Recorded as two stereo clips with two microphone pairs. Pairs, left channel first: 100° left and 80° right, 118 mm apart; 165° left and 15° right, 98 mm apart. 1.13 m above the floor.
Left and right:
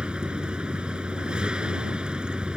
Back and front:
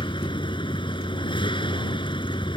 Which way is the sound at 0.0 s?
160° right.